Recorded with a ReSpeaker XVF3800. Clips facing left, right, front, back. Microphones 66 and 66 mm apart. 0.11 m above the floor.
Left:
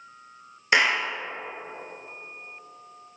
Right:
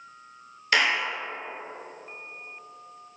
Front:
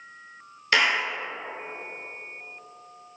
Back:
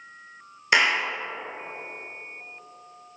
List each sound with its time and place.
0.7 s a clap: 130° left, 1.4 m